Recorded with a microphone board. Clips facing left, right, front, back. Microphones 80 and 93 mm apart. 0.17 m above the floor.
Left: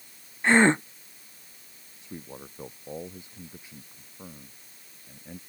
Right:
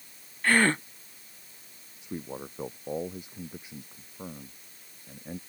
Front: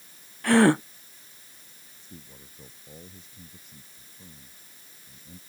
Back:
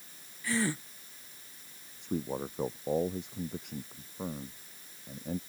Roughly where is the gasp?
Ahead.